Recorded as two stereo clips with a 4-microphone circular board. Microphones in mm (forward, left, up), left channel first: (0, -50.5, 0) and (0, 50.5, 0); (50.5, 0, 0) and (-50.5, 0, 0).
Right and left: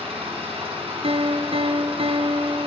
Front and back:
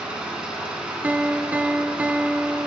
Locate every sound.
0.0 s an engine running: 100° left, 3.5 m
1.0 s a piano: 105° left, 0.7 m